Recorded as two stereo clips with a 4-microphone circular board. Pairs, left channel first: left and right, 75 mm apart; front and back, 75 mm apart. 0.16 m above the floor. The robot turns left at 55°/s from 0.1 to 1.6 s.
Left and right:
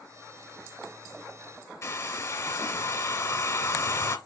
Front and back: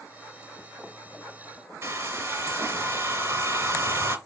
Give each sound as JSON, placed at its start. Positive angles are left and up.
{"t": 1.8, "sound": "a hair dryer", "azimuth_deg": 130, "distance_m": 2.5}